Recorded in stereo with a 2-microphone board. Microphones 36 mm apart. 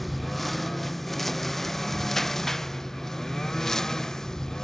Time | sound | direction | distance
0.0 | a lawn mower | 5° left (ahead or behind) | ?